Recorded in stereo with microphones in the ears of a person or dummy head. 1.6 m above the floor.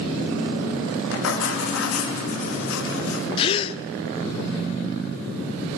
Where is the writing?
85° left, 3.5 m.